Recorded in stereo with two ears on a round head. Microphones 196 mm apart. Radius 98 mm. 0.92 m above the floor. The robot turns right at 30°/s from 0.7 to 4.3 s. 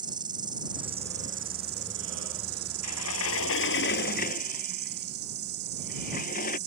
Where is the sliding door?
95° left; by 6.6 s 140° left.